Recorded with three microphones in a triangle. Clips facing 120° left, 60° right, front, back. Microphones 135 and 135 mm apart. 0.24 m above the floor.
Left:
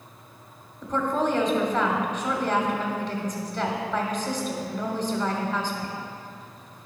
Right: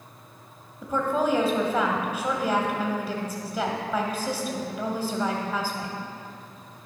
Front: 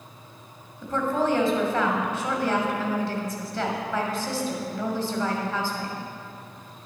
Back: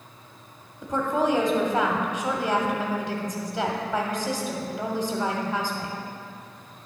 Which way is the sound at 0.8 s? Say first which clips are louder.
Even, back 1 dB; 130° right.